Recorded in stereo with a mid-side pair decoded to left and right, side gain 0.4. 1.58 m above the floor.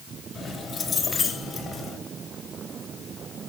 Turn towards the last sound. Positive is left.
turn(degrees=55)